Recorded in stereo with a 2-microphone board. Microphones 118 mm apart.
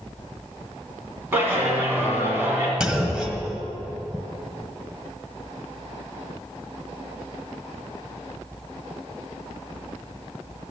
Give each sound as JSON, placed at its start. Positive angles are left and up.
{"t": 1.3, "sound": "a clap", "side_deg": -15, "distance_m": 2.5}
{"t": 2.8, "sound": "a clunk", "side_deg": -5, "distance_m": 1.3}